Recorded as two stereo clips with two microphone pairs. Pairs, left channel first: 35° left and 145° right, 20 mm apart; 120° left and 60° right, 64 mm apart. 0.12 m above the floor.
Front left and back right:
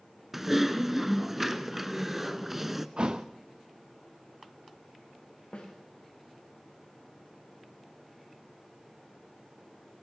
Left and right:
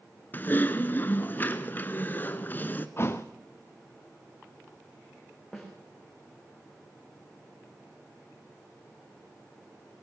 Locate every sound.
0.3 s typing on a keyboard: 150° left, 1.0 m
3.0 s a thud: 175° left, 1.4 m
5.5 s a snare drum: 30° left, 5 m